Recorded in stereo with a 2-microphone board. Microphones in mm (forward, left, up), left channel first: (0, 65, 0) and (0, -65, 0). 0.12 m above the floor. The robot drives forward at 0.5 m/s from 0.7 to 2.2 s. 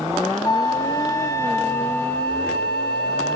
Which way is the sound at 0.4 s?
30° left (ahead or behind).